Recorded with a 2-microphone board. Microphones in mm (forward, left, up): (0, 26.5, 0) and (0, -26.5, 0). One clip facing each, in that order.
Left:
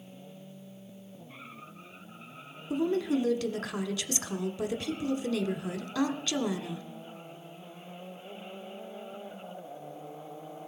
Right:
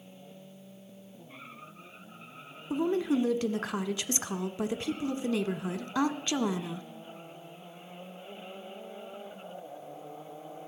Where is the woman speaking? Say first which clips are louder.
Even; 25° right (ahead or behind), 1.1 m.